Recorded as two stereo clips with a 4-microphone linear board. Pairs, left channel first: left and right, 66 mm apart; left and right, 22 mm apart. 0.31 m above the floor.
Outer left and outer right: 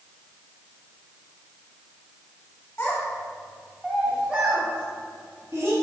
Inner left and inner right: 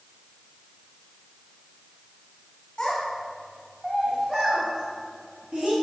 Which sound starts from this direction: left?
A child speaking, at 2.8 s.